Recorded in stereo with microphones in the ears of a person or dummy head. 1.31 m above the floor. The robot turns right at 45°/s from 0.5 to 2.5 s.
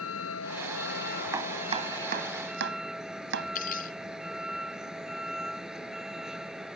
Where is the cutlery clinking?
55° left (ahead or behind).